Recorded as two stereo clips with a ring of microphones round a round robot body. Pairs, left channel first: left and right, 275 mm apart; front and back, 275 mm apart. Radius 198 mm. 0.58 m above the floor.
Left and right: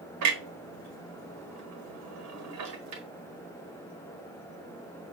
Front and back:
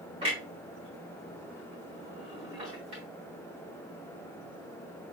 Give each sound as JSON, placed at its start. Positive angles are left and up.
{"t": 0.2, "sound": "a clunk", "azimuth_deg": -105, "distance_m": 0.8}